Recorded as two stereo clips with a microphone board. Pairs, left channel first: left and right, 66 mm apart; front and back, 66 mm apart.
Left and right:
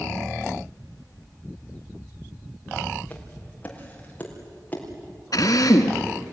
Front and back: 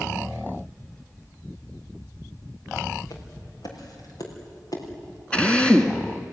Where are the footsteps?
20° left, 5.5 m; by 4.8 s 25° left, 6.5 m.